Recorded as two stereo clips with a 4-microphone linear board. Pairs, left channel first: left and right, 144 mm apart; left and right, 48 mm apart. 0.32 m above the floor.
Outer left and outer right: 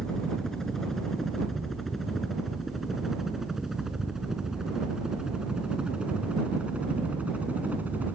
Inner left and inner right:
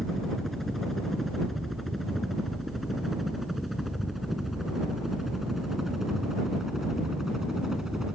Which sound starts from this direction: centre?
A helicopter, at 0.0 s.